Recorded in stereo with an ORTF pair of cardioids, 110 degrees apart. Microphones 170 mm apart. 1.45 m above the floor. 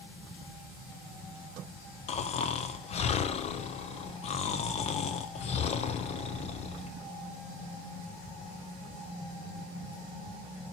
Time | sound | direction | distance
2.1 | snoring | 40° left | 0.6 m